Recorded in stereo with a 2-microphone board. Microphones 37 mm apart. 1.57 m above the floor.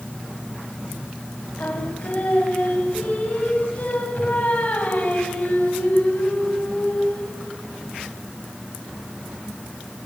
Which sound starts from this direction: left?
Singing, at 1.6 s.